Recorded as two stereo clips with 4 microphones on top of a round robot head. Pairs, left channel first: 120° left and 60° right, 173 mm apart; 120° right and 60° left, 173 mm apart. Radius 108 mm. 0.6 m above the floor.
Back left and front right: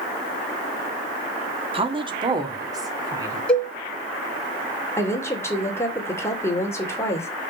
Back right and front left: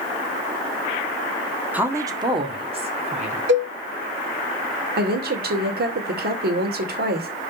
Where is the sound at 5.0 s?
50° left, 2.5 m.